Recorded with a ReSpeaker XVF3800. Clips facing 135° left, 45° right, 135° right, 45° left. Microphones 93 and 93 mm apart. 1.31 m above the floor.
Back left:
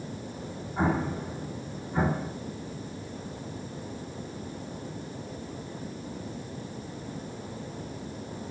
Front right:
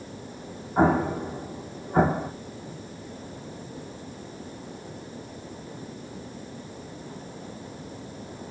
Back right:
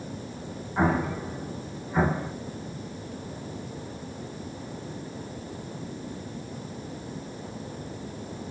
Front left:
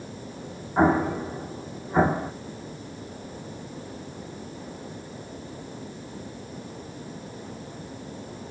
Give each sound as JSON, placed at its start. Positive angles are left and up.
{"t": 0.8, "sound": "an explosion", "azimuth_deg": -20, "distance_m": 0.7}